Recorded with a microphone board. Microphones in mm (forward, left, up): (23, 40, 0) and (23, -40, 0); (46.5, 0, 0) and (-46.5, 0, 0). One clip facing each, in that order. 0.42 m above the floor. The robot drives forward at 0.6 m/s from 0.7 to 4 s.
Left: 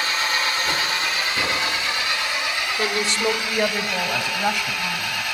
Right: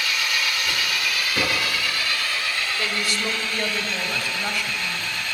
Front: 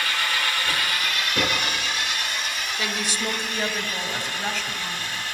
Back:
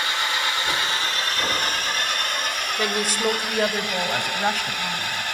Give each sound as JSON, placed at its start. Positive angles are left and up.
{"t": 0.0, "sound": "an engine running", "azimuth_deg": 125, "distance_m": 1.3}
{"t": 1.4, "sound": "knocking", "azimuth_deg": -30, "distance_m": 7.0}
{"t": 2.8, "sound": "a woman speaking", "azimuth_deg": 140, "distance_m": 1.3}